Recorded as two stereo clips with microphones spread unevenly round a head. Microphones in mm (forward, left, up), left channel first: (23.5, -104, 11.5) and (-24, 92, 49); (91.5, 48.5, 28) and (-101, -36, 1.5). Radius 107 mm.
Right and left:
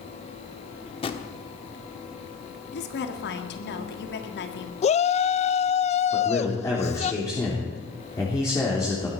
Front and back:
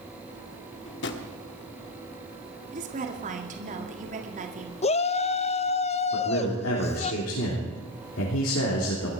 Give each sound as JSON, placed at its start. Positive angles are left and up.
{"t": 0.9, "sound": "a drawer", "azimuth_deg": -10, "distance_m": 1.3}
{"t": 2.7, "sound": "a woman speaking", "azimuth_deg": -105, "distance_m": 1.9}
{"t": 4.8, "sound": "a shout", "azimuth_deg": -35, "distance_m": 0.7}
{"t": 6.1, "sound": "a man speaking", "azimuth_deg": -5, "distance_m": 3.5}